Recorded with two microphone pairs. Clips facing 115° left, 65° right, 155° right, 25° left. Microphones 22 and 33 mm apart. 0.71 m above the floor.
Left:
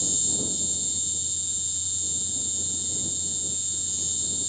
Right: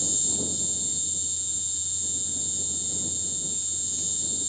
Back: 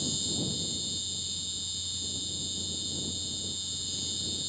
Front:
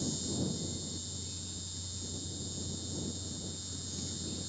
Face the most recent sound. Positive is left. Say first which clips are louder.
# left 1 dB, back 4 dB
turn(degrees=-165)